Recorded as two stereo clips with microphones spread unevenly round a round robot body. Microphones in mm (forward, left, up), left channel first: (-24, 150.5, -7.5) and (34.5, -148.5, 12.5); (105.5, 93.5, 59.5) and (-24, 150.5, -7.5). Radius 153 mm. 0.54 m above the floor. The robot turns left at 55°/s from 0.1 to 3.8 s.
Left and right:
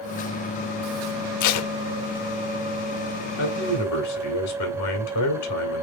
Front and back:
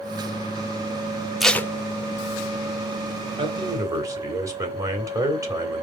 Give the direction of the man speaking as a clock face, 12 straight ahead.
7 o'clock.